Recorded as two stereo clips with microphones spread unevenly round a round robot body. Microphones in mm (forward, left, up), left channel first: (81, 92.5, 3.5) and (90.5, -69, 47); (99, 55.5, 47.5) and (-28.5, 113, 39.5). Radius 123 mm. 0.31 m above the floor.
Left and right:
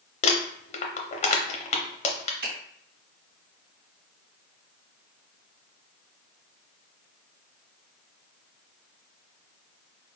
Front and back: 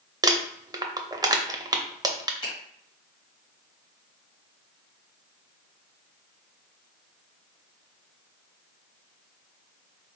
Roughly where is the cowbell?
No cowbell in this recording.